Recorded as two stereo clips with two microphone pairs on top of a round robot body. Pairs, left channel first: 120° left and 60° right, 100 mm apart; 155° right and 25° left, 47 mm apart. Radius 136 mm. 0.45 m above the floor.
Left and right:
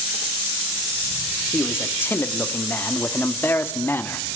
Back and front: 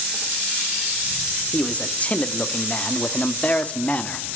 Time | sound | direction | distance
1.5 | a man speaking | 175° left | 1.5 m